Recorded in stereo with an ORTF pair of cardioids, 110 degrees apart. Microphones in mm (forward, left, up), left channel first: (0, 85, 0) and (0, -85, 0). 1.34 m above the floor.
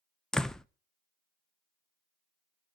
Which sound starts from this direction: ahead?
A door slam, at 0.3 s.